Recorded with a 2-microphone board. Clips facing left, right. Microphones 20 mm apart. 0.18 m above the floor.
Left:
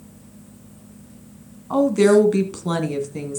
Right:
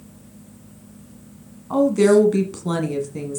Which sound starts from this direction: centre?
A woman speaking, at 1.7 s.